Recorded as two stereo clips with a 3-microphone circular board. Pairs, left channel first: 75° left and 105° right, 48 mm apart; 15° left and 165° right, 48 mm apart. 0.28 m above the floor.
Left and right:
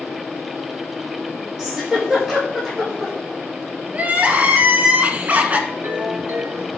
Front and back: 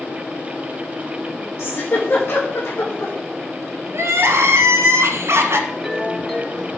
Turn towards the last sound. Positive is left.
turn(degrees=-65)